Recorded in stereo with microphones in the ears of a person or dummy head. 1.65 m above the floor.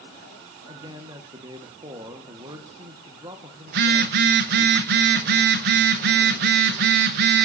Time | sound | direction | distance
0.7 | a man speaking | 20° right (ahead or behind) | 1.6 m
3.7 | a phone buzzing | 45° right (ahead or behind) | 1.0 m